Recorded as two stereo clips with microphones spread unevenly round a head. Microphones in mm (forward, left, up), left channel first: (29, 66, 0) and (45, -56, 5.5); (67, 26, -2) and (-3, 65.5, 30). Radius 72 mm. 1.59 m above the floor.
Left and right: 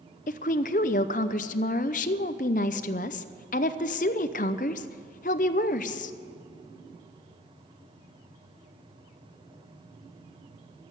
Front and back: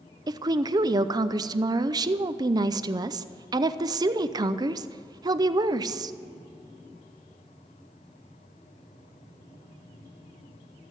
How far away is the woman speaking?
About 0.5 m.